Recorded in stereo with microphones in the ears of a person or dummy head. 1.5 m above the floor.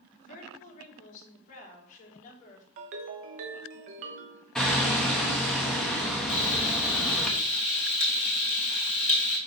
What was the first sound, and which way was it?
A woman speaking, 45° left (ahead or behind).